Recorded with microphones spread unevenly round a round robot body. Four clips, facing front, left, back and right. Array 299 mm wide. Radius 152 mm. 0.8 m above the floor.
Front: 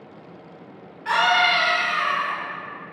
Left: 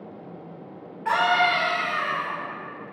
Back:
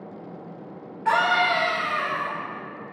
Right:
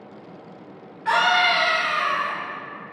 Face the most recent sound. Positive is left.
turn(degrees=140)